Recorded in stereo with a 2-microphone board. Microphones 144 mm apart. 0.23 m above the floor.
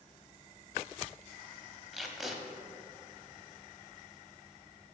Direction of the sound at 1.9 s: Centre (ahead or behind).